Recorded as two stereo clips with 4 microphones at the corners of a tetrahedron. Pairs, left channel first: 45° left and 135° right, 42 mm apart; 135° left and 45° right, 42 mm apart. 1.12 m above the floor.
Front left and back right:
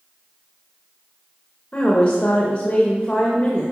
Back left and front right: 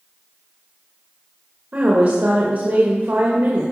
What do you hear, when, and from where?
1.7 s a woman speaking: 15° right, 1.5 m